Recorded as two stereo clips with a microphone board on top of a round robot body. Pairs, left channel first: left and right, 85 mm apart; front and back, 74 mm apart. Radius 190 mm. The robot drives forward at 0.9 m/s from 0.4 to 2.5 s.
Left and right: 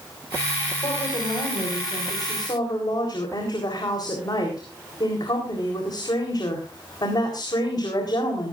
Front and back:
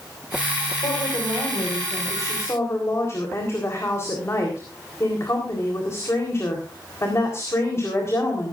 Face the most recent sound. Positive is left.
turn(degrees=55)